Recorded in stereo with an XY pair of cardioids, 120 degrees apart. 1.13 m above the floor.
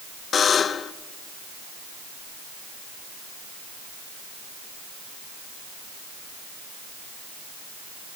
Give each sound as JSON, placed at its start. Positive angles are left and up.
{"t": 0.3, "sound": "a buzzer", "azimuth_deg": 45, "distance_m": 0.9}